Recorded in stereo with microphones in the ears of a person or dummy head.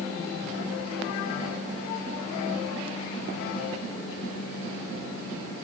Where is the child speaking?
I don't hear a child speaking.